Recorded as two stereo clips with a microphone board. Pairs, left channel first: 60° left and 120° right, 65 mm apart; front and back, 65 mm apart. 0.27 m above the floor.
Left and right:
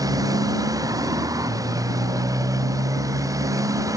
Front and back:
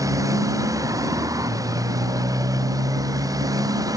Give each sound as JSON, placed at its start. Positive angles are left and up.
{"t": 0.0, "sound": "a motorcycle", "azimuth_deg": -145}